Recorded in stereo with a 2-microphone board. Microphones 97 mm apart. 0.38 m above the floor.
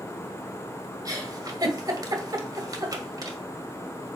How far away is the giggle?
About 1.9 m.